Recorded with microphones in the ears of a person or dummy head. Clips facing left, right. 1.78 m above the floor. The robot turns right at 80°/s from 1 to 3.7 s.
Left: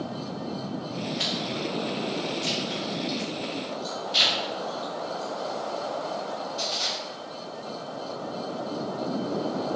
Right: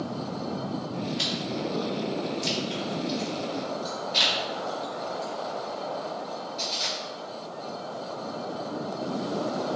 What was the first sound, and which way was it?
Chewing, 50° right (ahead or behind).